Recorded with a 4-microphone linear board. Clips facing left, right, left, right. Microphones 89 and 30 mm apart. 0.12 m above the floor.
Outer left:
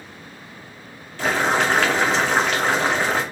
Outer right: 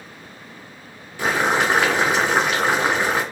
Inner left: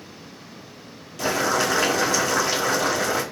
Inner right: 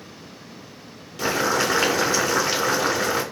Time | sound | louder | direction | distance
1.2 | boiling | even, even | 15° right (ahead or behind) | 1.1 m